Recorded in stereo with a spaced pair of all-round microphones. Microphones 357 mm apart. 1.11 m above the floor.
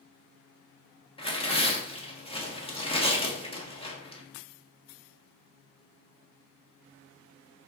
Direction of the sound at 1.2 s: 15° left (ahead or behind).